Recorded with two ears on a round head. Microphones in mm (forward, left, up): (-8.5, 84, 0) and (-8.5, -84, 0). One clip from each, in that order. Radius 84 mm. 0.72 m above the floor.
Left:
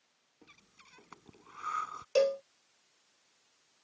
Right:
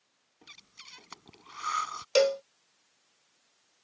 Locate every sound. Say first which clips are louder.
0.4 s breathing: right 10 dB; 80° right
2.1 s a cowbell: right 3 dB; 55° right (ahead or behind)